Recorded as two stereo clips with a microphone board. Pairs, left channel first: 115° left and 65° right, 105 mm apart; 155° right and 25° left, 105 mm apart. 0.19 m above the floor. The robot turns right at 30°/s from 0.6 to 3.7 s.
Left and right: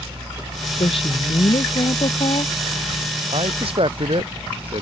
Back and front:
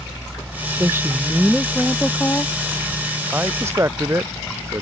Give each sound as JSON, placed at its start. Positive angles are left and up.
{"t": 0.8, "sound": "a woman speaking", "azimuth_deg": 85}
{"t": 3.3, "sound": "a man speaking", "azimuth_deg": -55}